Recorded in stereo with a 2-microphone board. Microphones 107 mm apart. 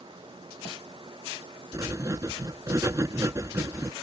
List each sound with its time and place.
1.7 s writing: 30° right (ahead or behind)